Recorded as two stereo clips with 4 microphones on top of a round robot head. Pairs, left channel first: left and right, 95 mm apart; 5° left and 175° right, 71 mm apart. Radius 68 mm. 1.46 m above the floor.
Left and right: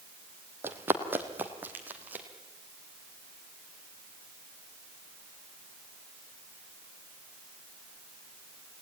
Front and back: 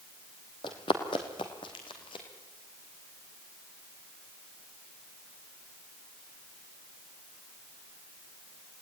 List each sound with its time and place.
0.6 s running footsteps: 30° right, 2.5 m; by 2.2 s 20° right, 3.5 m